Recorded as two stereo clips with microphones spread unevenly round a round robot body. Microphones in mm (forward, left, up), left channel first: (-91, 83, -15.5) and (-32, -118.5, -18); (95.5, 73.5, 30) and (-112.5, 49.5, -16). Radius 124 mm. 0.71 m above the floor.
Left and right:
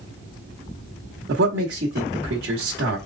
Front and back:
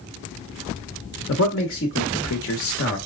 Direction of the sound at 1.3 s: 35° right.